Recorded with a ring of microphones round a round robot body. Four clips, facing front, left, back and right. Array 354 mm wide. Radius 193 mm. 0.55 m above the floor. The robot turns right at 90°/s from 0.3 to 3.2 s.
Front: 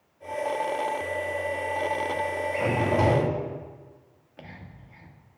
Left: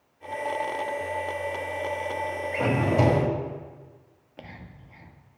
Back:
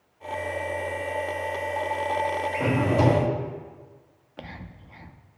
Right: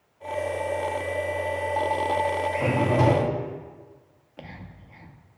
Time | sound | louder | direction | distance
2.5 | a drawer | left 2 dB, even | 80° left | 1.6 m
4.4 | whispering | right 2 dB, back 4 dB | straight behind | 0.7 m